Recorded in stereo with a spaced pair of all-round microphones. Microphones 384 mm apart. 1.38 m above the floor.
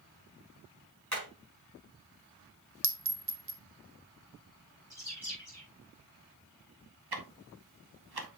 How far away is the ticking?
About 1.0 m.